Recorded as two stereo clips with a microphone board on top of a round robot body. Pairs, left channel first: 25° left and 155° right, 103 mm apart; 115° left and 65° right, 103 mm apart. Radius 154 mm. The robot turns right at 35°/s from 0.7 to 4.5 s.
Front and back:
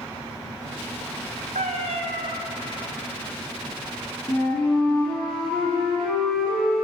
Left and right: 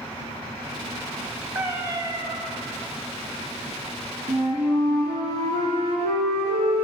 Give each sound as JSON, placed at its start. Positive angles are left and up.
{"t": 1.6, "sound": "a cat meowing", "azimuth_deg": -145, "distance_m": 0.8}
{"t": 4.3, "sound": "a flute", "azimuth_deg": -70, "distance_m": 1.9}